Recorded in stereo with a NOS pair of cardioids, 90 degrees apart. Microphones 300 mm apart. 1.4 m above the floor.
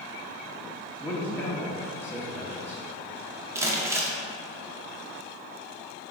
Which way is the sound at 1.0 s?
5° left.